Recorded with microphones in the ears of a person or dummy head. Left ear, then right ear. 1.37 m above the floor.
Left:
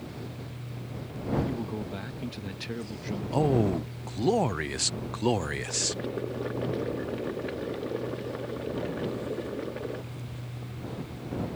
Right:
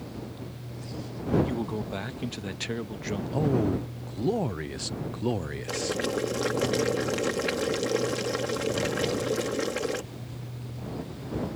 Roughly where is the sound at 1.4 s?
Centre.